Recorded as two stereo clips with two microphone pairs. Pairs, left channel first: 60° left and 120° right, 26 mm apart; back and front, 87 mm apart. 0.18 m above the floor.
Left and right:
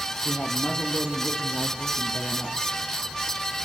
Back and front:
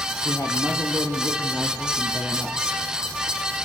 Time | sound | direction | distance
0.2 | a man speaking | 120° left | 6 m